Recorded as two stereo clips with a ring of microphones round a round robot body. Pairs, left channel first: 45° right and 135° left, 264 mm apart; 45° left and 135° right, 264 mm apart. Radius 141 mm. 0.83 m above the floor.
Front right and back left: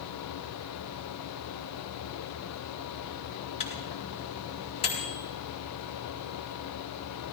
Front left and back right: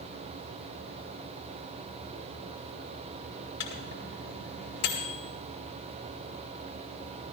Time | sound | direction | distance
3.6 | a microwave | 25° left | 4 m